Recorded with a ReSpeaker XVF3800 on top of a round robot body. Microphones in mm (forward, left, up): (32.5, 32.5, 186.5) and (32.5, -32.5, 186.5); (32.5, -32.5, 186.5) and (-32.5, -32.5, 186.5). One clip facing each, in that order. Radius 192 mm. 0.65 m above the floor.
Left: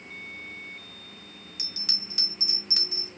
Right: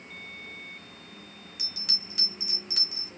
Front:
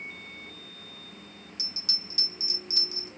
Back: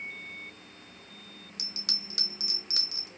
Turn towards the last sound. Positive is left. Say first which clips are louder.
# left 1 dB, back 1 dB
turn(degrees=180)